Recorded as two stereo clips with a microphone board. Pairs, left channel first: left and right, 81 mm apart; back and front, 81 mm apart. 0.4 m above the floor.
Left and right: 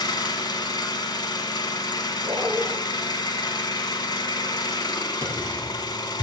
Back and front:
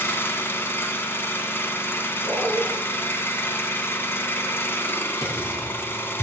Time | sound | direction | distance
0.0 | an engine running | 120° left | 0.9 m
2.2 | a dog barking | 125° right | 3 m
5.2 | typing on a keyboard | 140° right | 3 m